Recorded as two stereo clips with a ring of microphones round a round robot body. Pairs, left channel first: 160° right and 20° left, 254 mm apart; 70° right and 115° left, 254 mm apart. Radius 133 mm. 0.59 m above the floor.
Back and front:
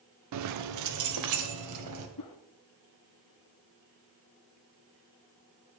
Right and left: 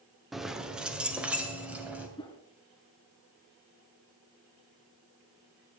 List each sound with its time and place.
0.3 s keys jangling: 25° left, 0.8 m
2.2 s a whoosh: 140° right, 1.5 m